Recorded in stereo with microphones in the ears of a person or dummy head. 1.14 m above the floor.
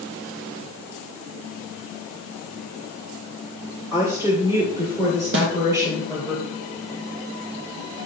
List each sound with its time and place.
3.9 s a woman speaking: 20° right (ahead or behind), 1.6 m
5.3 s a snare drum: 60° right (ahead or behind), 1.0 m